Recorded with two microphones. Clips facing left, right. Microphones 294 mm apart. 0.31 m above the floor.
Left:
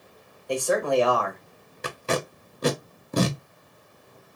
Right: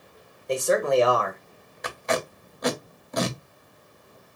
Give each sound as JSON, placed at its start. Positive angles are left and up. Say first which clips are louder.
{"t": 0.5, "sound": "a man speaking", "louder": "right 1 dB", "side_deg": -25, "distance_m": 1.1}
{"t": 1.8, "sound": "tape being pulled", "louder": "even", "side_deg": 35, "distance_m": 0.6}